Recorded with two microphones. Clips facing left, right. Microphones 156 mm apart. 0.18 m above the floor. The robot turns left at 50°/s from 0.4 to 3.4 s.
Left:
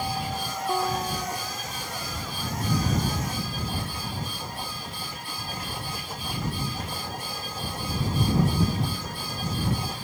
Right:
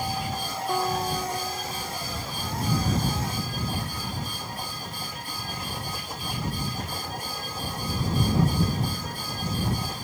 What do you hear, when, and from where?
0.7 s a guitar: 5° left; by 2.0 s 60° right